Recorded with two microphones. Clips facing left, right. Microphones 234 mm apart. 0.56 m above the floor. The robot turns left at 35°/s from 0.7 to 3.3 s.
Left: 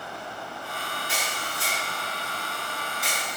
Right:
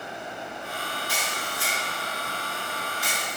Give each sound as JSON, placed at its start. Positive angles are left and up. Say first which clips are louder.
{"t": 1.1, "sound": "a camera shutter", "louder": "right 1 dB", "side_deg": 25, "distance_m": 1.8}